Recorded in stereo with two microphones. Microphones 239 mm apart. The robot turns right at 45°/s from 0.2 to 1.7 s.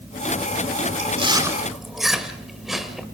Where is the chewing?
35° right (ahead or behind), 2.0 m; by 3.0 s centre (ahead or behind), 2.0 m.